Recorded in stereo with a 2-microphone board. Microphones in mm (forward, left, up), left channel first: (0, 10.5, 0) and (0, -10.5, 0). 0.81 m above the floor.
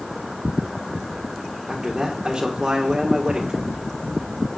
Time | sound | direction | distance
1.7 | a man speaking | 40° right (ahead or behind) | 1.9 m